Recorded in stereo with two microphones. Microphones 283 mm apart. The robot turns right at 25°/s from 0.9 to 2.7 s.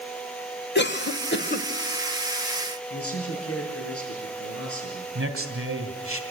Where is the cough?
40° left (ahead or behind), 1.0 m; by 1.7 s 35° left (ahead or behind), 1.0 m.